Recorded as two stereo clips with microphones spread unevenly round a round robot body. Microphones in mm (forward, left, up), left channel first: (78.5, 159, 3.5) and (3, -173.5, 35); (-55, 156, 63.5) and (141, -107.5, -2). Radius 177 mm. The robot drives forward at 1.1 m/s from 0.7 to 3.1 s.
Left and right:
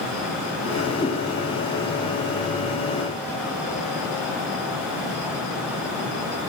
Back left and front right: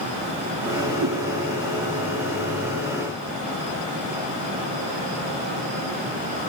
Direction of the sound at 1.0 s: Straight ahead.